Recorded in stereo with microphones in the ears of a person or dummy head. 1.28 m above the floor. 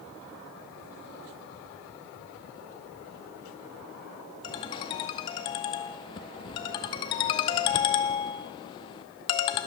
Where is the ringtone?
25° left (ahead or behind), 0.7 m.